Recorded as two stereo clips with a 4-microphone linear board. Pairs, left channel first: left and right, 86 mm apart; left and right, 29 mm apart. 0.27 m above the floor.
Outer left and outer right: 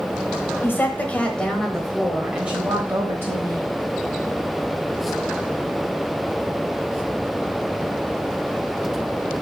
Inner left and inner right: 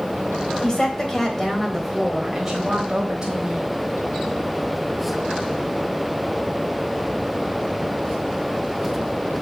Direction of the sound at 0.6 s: 25° left (ahead or behind).